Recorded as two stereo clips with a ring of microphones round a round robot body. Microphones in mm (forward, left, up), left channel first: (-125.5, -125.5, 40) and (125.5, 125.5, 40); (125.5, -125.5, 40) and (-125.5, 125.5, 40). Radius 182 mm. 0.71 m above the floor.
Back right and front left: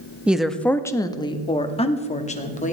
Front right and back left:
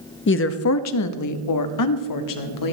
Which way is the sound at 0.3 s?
40° right.